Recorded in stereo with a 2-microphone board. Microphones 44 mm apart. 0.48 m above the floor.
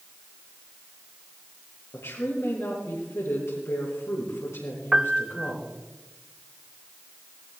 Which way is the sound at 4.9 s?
20° right (ahead or behind).